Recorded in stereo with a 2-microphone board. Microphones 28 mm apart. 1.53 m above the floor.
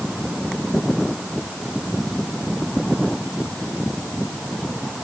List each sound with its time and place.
Only background noise.